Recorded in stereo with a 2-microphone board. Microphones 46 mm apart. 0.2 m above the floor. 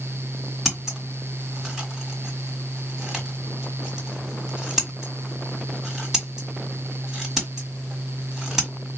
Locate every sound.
0.7 s scissors: 5° right (ahead or behind), 1.5 m